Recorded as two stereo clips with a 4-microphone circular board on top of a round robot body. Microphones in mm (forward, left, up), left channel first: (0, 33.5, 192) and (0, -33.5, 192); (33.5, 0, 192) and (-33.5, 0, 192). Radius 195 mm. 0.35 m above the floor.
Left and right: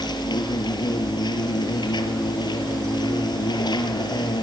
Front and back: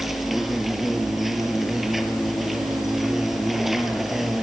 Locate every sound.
0.0 s an insect: 95° left, 3 m